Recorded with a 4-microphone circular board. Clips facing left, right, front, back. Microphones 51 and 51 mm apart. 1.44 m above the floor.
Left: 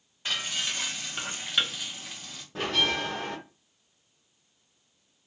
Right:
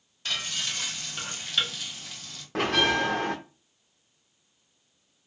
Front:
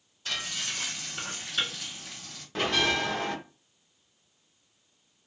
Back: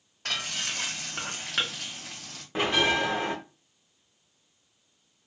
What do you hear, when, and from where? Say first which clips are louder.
0.2 s frying: left 1 dB, back 2 dB; 160° left, 0.8 m
2.5 s a bell: right 4 dB, back 2 dB; 110° right, 0.5 m